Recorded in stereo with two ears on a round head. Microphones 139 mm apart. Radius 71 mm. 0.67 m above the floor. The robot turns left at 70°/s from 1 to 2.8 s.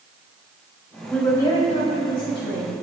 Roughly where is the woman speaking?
Behind.